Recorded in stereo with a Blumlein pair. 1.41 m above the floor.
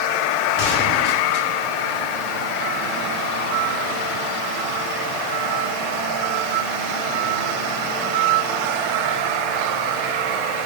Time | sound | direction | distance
0.6 | a gunshot | 40° left | 2.5 m